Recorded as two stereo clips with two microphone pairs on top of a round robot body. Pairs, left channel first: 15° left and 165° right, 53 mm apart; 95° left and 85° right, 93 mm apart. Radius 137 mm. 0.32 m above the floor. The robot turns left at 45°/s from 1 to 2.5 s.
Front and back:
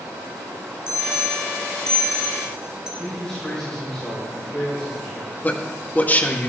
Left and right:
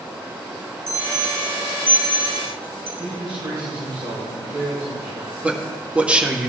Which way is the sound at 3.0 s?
65° right.